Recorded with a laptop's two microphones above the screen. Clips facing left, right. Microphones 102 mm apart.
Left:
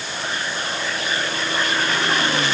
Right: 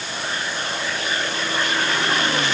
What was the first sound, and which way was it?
Only background noise.